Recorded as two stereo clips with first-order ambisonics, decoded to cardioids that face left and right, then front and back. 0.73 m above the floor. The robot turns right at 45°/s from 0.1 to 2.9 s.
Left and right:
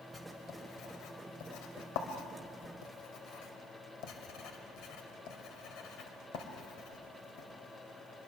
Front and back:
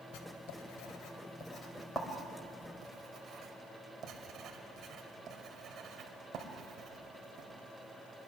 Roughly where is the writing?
Ahead.